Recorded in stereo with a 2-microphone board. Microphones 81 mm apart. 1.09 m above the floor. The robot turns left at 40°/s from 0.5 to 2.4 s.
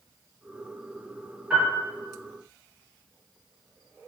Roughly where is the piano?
Centre.